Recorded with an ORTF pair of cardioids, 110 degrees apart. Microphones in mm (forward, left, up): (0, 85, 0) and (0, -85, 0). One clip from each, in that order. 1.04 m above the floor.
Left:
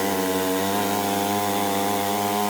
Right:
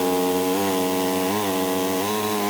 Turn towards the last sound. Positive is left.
No sound to turn to.